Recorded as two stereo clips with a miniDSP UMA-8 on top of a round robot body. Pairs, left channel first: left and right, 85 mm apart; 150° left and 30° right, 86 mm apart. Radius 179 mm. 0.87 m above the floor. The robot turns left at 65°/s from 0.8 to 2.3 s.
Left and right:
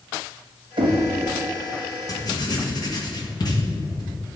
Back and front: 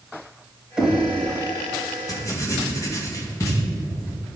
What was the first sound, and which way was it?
Knocking, 110° right.